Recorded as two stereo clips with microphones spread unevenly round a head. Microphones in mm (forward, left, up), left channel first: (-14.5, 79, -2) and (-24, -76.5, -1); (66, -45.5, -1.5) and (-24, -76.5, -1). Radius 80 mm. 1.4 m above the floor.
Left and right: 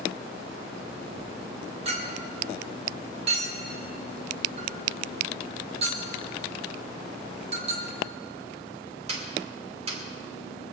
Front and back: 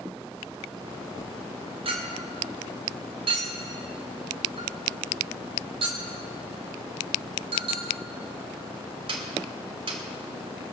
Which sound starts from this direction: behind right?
A clink, at 1.9 s.